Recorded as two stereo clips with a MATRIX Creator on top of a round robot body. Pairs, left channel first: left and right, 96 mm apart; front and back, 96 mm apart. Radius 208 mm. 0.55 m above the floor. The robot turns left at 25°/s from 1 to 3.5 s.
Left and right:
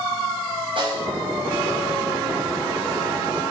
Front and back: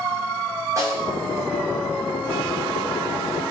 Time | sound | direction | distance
0.8 | a snare drum | 120° right | 5 m